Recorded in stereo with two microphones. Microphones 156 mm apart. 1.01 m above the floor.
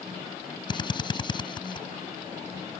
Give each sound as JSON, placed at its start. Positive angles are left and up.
{"t": 0.7, "sound": "a drill", "side_deg": 30}